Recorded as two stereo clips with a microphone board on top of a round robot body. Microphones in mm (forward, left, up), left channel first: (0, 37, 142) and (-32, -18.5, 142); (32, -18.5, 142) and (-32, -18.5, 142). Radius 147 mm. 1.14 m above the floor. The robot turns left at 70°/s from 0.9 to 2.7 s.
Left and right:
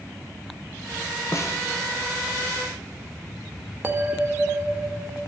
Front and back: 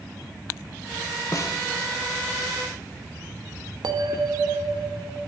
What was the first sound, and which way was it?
A snare drum, 30° left.